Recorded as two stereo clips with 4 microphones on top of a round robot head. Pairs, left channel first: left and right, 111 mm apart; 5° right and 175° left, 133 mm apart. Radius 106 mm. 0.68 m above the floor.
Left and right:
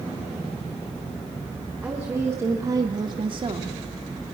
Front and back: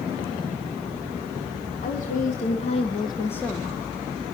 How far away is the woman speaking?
About 1.9 m.